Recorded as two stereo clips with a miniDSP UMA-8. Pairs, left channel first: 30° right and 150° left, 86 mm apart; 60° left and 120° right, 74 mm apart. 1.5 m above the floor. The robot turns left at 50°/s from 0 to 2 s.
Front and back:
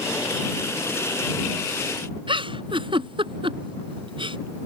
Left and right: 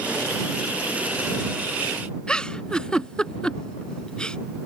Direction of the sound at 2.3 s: 140° left.